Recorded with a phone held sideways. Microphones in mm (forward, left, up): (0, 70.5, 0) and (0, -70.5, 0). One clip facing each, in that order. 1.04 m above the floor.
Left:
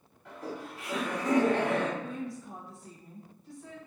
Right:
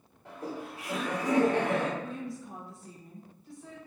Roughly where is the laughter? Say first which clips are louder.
Right 1 dB; right.